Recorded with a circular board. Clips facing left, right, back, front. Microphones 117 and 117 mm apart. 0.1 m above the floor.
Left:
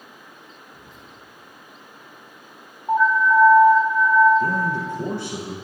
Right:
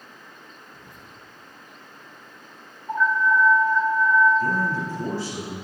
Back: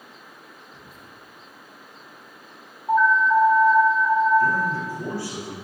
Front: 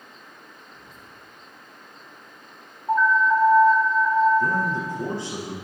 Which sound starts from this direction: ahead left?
A man speaking, at 4.4 s.